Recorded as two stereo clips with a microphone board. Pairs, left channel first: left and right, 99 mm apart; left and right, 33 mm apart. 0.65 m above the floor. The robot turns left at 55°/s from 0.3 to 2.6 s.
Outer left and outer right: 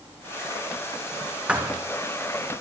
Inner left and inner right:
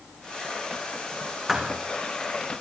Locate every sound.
1.5 s a thud: 10° right (ahead or behind), 3.5 m; by 1.8 s 25° right (ahead or behind), 3.5 m